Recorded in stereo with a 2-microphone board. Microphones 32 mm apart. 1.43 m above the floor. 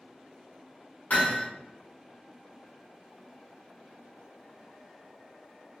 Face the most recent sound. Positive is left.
turn(degrees=60)  # may be behind; listen again after turning